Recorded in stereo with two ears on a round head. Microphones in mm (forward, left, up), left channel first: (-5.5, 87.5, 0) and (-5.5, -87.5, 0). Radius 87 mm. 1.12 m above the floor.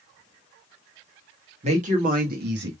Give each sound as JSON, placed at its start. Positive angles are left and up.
{"t": 1.6, "sound": "a woman speaking", "side_deg": -35, "distance_m": 1.7}